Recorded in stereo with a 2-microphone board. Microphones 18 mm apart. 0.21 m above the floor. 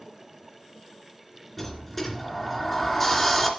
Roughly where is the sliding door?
Centre.